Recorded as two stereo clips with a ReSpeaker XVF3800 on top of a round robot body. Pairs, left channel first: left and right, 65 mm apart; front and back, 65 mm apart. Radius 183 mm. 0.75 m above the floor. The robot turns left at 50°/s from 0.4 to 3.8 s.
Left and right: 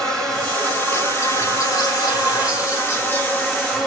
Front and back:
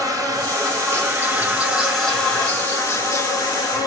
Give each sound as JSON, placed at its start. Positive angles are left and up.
{"t": 0.0, "sound": "an insect", "azimuth_deg": 170, "distance_m": 3.0}